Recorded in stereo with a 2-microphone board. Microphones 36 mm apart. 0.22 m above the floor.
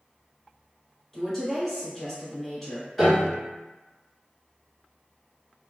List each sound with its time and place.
1.1 s a woman speaking: 5° left (ahead or behind), 1.1 m
3.0 s a piano: centre (ahead or behind), 1.2 m